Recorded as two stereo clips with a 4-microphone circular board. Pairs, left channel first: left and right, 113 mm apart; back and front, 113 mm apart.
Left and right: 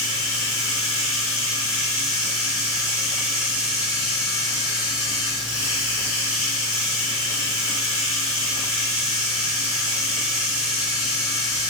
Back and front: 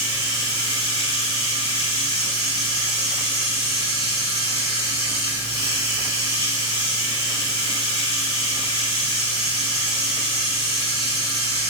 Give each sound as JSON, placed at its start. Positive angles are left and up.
{"t": 0.0, "sound": "running water", "azimuth_deg": -160, "distance_m": 1.8}